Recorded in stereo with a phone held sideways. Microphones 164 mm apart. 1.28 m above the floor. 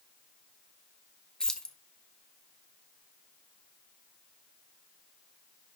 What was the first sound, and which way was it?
Keys jangling, 5° left (ahead or behind).